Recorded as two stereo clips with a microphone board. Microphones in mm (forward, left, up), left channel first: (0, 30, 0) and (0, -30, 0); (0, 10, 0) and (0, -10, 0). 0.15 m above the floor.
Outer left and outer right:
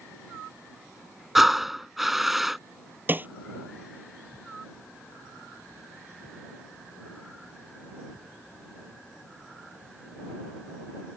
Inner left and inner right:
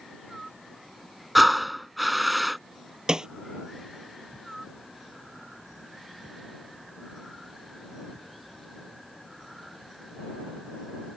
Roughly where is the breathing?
Centre.